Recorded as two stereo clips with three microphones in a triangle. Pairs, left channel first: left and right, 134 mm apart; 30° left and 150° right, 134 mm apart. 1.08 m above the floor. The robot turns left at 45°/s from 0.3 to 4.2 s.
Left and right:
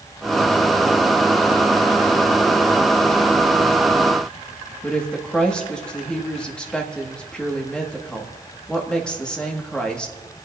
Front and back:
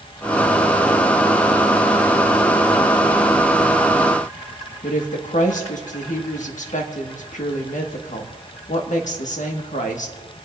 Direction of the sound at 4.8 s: 5° left.